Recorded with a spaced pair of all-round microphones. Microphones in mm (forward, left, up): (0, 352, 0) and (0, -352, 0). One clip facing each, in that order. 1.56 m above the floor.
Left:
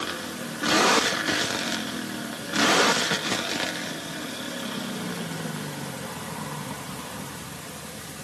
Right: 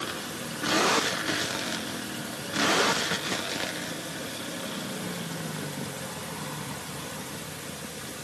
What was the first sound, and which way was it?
Only background noise.